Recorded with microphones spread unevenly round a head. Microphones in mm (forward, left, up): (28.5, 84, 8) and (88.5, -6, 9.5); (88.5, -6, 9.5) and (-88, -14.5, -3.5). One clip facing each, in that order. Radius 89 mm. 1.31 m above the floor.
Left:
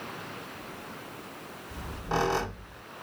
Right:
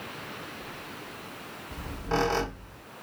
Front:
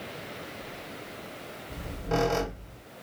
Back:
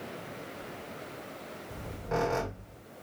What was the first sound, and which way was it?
A squeak, 45° left.